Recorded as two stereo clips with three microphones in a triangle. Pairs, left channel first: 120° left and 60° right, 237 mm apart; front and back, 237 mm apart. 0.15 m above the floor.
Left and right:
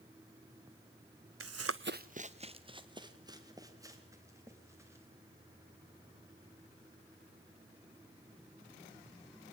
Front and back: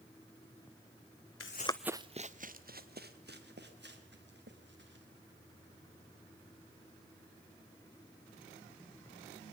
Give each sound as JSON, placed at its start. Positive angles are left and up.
{"t": 1.4, "sound": "running footsteps", "azimuth_deg": -30, "distance_m": 0.6}